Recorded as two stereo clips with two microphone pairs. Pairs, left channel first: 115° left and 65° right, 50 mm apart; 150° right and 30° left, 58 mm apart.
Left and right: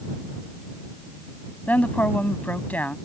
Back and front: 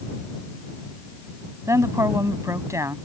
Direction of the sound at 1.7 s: 60° left.